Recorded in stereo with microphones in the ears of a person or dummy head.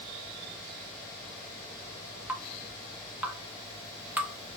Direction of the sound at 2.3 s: 10° right (ahead or behind).